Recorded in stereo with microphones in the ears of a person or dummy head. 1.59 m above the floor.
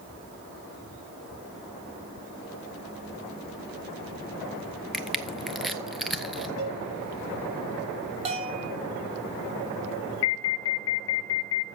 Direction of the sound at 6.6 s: 65° right (ahead or behind).